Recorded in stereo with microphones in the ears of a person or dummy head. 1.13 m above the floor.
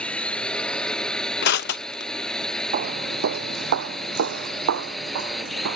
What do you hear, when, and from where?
0.0 s a drone: 10° left (ahead or behind); by 5.8 s centre (ahead or behind)
1.4 s crushing: 65° left (ahead or behind)
2.7 s footsteps: 45° right (ahead or behind); by 5.8 s 80° right